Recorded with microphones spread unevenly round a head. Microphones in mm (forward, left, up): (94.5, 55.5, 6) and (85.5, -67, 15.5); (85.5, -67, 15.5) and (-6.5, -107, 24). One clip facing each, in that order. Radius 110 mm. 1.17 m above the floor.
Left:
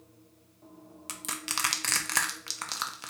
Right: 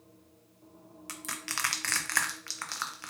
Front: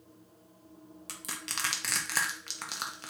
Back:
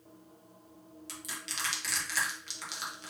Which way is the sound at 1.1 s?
25° left.